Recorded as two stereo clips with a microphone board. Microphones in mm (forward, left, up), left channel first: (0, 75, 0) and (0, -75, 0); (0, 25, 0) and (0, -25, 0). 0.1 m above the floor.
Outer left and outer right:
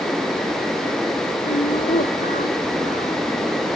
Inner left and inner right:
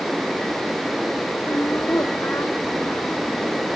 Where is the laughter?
65° left (ahead or behind); by 3.7 s 70° left (ahead or behind).